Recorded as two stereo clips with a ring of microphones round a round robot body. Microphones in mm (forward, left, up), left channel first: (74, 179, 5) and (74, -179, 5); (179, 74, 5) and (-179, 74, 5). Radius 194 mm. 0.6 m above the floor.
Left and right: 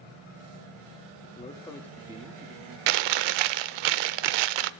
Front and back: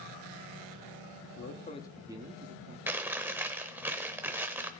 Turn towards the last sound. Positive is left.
turn(degrees=-95)